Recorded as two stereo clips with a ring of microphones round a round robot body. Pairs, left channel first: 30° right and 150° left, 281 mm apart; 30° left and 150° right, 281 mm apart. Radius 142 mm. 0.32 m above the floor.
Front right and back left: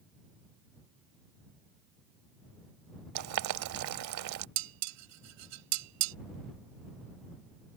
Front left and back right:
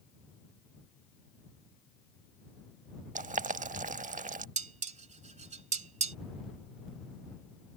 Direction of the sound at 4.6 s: 150° left.